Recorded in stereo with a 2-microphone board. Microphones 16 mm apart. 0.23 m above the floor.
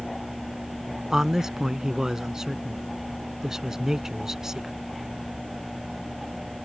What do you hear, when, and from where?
1.1 s a man speaking: 30° right (ahead or behind)